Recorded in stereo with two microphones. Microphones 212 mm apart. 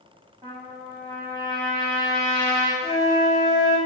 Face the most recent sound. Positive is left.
turn(degrees=20)  # may be behind; listen again after turning